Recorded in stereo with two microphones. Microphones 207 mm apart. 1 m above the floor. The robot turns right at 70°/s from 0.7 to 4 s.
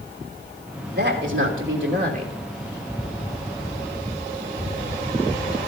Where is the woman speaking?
130° right, 3 m; by 2.3 s 35° right, 3 m.